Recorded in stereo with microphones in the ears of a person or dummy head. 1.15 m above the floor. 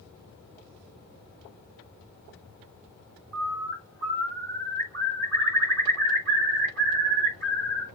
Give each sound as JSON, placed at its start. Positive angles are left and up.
{"t": 3.3, "sound": "a bird", "side_deg": -50, "distance_m": 2.5}